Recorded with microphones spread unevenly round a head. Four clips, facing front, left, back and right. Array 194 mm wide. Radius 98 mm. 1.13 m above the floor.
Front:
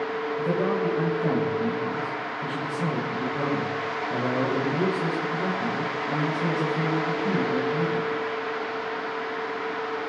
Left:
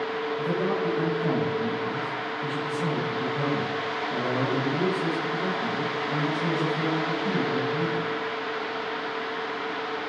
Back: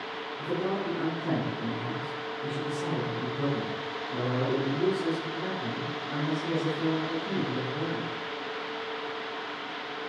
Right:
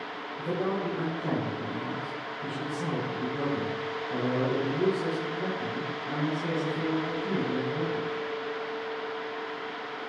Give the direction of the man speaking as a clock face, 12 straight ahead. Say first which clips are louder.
Left 1 dB, front 5 dB; 12 o'clock.